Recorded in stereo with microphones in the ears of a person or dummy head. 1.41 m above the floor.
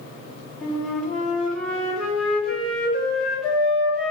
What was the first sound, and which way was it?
A flute, 5° left (ahead or behind).